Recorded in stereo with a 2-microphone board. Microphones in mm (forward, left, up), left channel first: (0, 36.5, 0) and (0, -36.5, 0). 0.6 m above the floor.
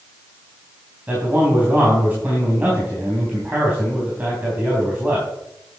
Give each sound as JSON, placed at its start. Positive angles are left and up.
{"t": 1.1, "sound": "a man speaking", "side_deg": -20, "distance_m": 3.5}